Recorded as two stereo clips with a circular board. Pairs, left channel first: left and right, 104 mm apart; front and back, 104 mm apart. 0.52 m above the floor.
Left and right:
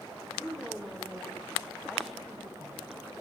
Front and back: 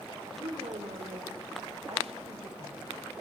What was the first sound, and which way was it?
A woman speaking, 175° right.